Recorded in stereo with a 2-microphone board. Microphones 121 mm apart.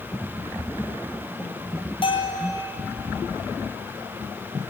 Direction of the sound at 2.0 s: 45° left (ahead or behind).